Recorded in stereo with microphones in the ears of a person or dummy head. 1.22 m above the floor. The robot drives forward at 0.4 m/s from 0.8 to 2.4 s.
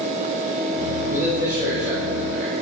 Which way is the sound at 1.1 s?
10° right (ahead or behind).